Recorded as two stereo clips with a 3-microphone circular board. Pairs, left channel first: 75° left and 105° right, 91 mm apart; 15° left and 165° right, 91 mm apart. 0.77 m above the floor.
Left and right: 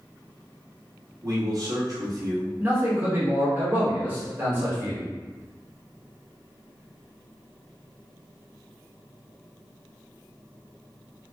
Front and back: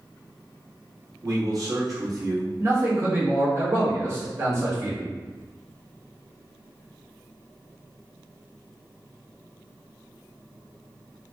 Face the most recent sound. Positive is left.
turn(degrees=-155)